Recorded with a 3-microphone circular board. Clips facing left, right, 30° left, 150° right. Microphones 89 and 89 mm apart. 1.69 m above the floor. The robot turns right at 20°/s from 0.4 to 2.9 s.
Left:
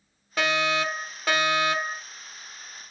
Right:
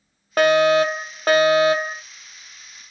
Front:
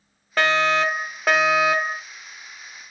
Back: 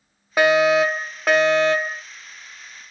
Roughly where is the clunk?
No clunk in this recording.